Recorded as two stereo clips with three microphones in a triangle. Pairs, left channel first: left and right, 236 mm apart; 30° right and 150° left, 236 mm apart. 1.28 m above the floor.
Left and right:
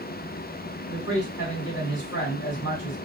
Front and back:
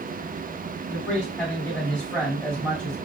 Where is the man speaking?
55° left, 2 m.